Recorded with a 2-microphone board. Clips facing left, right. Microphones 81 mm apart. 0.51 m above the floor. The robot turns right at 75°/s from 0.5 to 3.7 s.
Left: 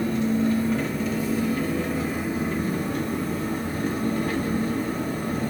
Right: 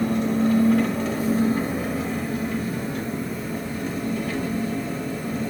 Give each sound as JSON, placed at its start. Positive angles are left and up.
{"t": 0.0, "sound": "an engine running", "azimuth_deg": -110, "distance_m": 0.8}